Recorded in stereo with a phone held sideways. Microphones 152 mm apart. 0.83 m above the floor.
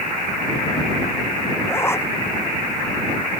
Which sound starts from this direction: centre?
A zipper, at 1.7 s.